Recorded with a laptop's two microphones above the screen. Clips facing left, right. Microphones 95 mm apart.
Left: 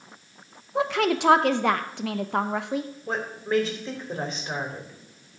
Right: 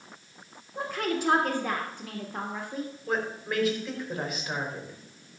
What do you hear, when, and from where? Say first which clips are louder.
0.8 s a woman speaking: left 7 dB; 75° left (ahead or behind), 0.7 m
3.1 s a woman speaking: left 3 dB; 30° left (ahead or behind), 3.5 m